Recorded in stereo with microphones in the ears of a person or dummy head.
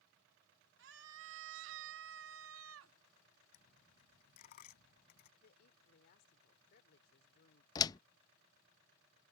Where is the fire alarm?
I don't hear a fire alarm.